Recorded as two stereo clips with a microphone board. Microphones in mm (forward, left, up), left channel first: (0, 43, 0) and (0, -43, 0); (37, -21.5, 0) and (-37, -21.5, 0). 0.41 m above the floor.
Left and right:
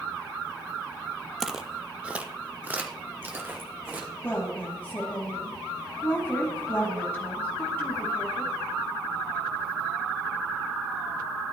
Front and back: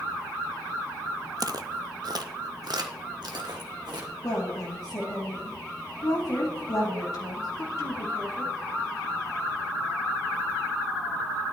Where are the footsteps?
175° right, 0.6 m; by 4.1 s 155° right, 2.0 m.